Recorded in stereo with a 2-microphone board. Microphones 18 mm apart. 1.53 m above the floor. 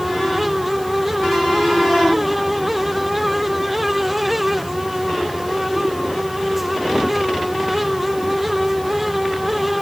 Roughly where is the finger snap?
I don't hear a finger snap.